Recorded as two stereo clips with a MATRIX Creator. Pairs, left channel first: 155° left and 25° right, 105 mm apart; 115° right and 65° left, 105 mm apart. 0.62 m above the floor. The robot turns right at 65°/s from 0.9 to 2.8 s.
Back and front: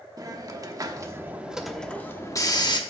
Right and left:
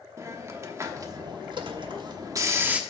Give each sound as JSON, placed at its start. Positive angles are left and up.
{"t": 0.2, "sound": "a hiss", "azimuth_deg": 15, "distance_m": 1.0}